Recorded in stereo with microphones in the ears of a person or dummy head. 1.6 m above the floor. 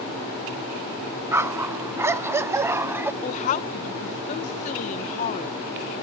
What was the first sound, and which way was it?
A dog barking, 10° right (ahead or behind).